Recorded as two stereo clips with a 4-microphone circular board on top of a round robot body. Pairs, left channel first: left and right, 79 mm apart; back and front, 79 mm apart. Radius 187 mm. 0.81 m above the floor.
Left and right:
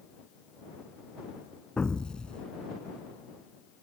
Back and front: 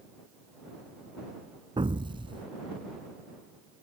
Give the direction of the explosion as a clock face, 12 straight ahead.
12 o'clock.